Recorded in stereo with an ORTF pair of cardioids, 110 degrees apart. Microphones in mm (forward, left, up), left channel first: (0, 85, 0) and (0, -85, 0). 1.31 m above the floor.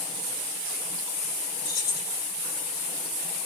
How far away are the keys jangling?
About 1.9 m.